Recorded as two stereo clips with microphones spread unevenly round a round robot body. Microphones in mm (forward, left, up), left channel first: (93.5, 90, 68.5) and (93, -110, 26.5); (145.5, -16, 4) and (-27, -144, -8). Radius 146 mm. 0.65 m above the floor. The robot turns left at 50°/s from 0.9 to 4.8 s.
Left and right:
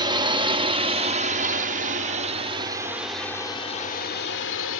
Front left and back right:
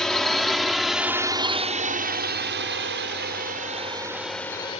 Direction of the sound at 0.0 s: 50° right.